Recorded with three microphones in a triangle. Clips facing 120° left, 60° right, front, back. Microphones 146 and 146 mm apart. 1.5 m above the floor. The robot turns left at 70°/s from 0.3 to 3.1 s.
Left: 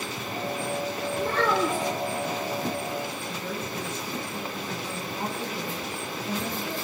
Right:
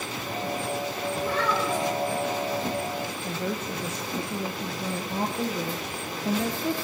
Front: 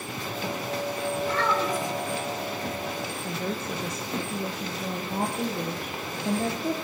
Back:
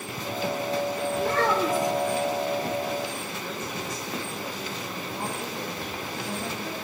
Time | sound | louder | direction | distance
1.2 | a child speaking | left 3 dB, back 3 dB | 155° left | 3.5 m
3.2 | a woman speaking | right 3 dB, front 3 dB | 35° right | 1.2 m